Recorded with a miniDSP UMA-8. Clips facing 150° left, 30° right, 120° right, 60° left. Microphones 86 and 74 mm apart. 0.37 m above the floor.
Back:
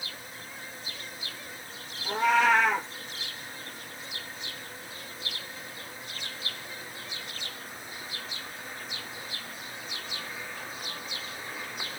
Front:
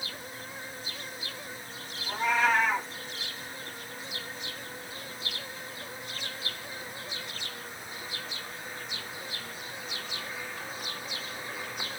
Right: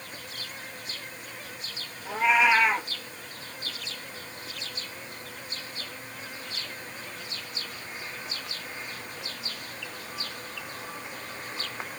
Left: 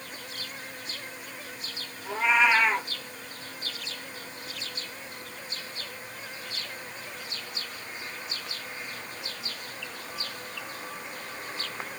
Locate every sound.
2.0 s a cat meowing: 155° left, 1.1 m